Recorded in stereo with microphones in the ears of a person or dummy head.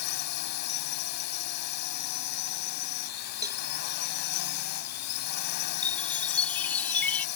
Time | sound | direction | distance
0.0 | a drone | 55° left (ahead or behind) | ?
3.4 | a cowbell | 25° right (ahead or behind) | ?
5.8 | a chime | 10° left (ahead or behind) | ?